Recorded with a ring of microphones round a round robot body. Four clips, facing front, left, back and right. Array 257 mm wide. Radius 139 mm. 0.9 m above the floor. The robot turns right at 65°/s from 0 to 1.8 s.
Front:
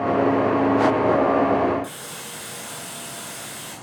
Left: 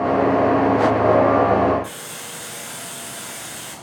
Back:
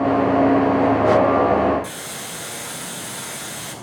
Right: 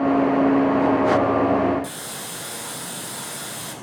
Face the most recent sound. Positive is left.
turn(degrees=-115)